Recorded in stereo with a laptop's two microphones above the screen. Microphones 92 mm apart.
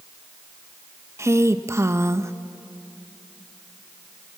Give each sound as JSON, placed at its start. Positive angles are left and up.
{"t": 1.2, "sound": "a woman speaking", "side_deg": -30, "distance_m": 0.9}